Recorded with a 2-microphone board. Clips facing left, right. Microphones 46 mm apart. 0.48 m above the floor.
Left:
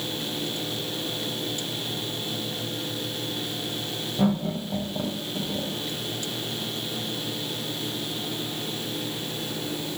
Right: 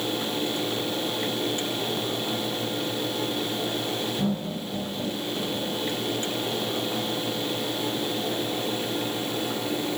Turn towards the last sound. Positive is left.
turn(degrees=60)  # may be behind; listen again after turning